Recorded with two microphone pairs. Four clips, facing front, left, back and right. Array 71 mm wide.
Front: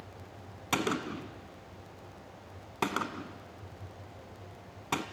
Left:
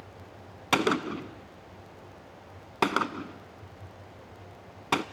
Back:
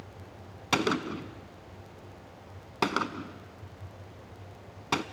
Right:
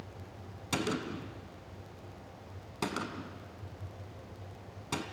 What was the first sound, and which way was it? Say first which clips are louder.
A gunshot: left 8 dB, back 4 dB; 110° left.